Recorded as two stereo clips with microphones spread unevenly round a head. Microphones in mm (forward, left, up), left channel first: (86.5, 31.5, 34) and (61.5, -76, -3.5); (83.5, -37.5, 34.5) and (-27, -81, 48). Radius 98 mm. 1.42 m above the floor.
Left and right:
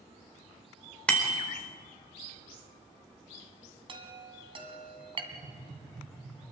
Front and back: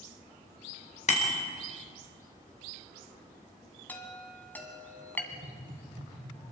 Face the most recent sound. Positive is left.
turn(degrees=-155)